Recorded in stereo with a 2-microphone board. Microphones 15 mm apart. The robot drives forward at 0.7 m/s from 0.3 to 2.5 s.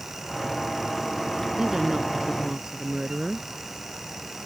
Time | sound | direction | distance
1.6 | a woman speaking | 50° right (ahead or behind) | ?